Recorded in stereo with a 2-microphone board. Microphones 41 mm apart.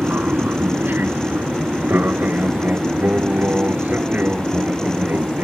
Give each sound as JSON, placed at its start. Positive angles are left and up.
{"t": 0.0, "sound": "an aircraft", "side_deg": -60}